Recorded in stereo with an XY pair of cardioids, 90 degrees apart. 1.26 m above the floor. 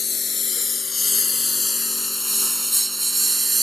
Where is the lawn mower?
45° left; by 3.6 s 30° right.